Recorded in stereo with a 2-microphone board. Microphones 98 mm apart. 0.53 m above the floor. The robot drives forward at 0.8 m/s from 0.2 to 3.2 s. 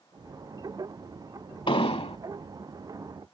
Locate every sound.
1.7 s an explosion: 60° left (ahead or behind); by 2.2 s 70° left (ahead or behind)